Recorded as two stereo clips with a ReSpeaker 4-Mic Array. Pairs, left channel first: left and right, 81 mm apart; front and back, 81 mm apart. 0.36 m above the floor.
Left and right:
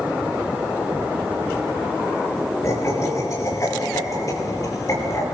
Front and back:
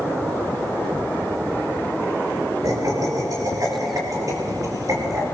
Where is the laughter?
140° left, 5.5 m; by 5.2 s 135° left, 8 m.